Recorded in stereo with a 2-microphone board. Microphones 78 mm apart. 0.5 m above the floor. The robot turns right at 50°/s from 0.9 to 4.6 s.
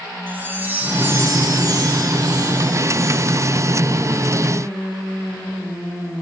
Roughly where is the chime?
Behind right.